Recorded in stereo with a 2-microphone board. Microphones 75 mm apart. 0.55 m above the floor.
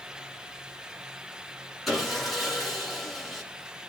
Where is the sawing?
Centre (ahead or behind), 7.5 m.